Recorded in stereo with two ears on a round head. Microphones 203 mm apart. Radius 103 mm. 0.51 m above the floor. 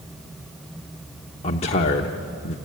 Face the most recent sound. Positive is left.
turn(degrees=30)  # may be behind; listen again after turning